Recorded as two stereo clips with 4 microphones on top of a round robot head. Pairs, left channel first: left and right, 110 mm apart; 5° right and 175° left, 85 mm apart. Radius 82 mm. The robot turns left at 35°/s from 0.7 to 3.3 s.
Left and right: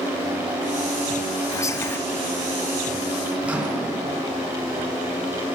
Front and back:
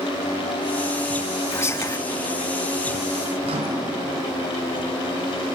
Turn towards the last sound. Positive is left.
turn(degrees=-170)